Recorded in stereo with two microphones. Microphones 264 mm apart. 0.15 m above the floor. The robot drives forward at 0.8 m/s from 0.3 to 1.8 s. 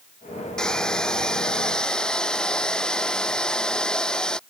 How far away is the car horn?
I don't hear a car horn.